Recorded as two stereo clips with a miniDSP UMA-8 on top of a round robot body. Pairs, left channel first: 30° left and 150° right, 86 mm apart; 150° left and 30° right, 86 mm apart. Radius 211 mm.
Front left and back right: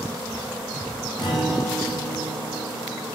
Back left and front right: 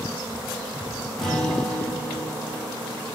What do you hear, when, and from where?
1.2 s a guitar: 65° left, 4.5 m